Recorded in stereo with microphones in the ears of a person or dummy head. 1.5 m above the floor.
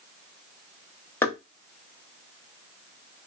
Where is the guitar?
No guitar in this recording.